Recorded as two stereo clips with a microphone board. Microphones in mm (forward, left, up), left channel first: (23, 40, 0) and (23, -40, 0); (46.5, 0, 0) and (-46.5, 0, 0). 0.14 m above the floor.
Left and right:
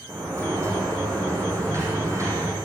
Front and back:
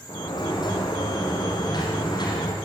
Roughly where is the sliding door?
Ahead right.